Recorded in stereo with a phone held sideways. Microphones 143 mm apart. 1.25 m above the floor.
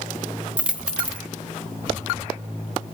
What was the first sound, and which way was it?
A dropped coin, 5° right (ahead or behind).